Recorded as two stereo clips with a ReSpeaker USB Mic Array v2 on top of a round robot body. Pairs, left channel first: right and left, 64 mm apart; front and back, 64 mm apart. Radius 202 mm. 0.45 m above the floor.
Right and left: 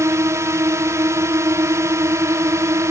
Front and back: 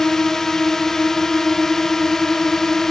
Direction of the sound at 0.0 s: 80° left.